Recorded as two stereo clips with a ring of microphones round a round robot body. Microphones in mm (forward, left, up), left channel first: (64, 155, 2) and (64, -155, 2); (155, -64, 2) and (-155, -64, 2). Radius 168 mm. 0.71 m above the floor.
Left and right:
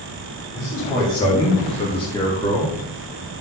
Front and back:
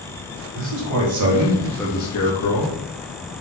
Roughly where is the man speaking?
Behind.